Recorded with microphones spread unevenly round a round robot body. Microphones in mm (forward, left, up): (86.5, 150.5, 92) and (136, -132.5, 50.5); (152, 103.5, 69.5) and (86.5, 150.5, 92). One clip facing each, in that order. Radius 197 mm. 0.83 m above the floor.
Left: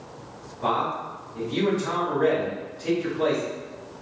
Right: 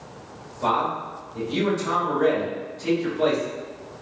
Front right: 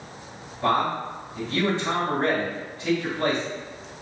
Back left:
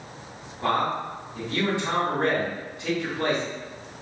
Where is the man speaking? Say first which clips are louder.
Right 1 dB, front right 2 dB; 130° right, 2 m.